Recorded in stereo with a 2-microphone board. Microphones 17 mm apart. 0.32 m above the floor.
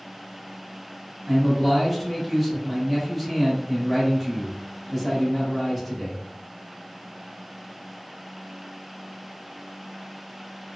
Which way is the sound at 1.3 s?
Centre (ahead or behind).